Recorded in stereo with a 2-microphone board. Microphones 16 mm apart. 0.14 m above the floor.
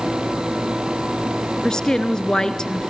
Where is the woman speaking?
45° left (ahead or behind), 1.8 m.